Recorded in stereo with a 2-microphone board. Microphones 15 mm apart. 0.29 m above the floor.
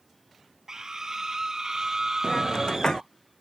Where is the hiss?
85° left.